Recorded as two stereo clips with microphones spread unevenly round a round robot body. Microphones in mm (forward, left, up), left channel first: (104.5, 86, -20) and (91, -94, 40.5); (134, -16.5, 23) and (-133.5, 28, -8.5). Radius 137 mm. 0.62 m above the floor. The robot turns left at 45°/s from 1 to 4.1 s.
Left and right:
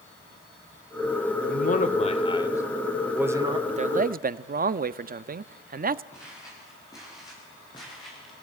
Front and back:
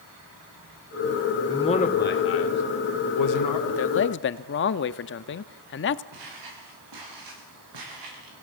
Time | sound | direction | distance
1.5 | a man speaking | 70° left | 2 m
3.7 | a man speaking | 30° right | 0.7 m
6.1 | footsteps | 165° left | 8 m